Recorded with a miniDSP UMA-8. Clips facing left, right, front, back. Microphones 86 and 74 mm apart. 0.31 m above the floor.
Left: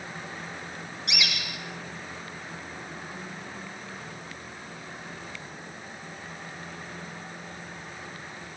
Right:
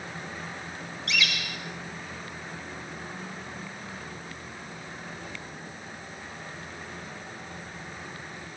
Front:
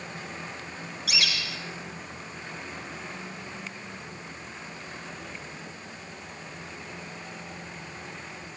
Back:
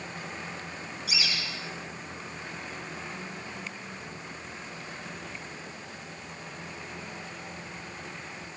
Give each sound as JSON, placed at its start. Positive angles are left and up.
{"t": 1.1, "sound": "a bird", "azimuth_deg": 15, "distance_m": 7.0}